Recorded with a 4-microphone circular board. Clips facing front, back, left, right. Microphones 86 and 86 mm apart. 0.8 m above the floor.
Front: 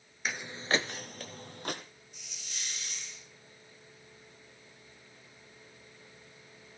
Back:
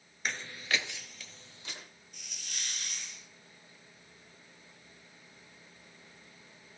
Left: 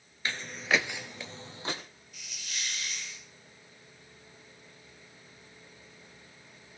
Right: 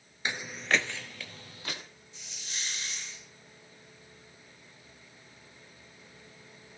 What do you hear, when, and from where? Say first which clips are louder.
0.2 s footsteps: front 3 dB, even; 85° right, 0.8 m; by 1.8 s 30° left, 1.9 m
2.1 s a hiss: back 2 dB, left 1 dB; 150° right, 4 m